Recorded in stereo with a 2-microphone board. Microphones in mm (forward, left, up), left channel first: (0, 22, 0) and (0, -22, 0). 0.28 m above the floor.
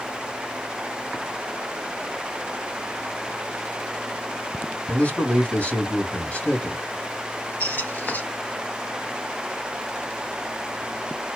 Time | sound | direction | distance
4.9 | a man speaking | 35° left (ahead or behind) | 2 m
7.6 | a squeak | 45° left (ahead or behind) | 1.4 m